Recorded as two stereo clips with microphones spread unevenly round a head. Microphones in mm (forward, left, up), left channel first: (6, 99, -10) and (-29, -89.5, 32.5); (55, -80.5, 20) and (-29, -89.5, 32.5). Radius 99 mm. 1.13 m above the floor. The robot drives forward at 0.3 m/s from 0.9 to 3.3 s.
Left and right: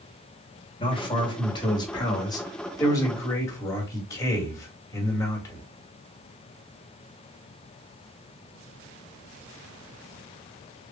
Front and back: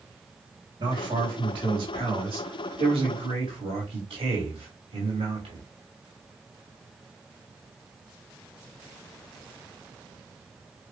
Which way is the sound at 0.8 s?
135° left.